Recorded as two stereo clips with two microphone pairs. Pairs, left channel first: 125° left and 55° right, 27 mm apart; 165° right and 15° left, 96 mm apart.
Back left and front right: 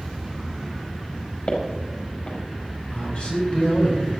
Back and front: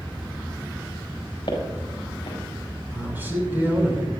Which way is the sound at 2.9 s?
85° left.